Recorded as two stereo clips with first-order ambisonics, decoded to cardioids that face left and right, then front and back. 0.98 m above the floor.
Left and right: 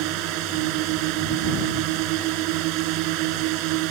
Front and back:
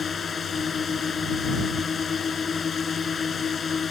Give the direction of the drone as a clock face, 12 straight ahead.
2 o'clock.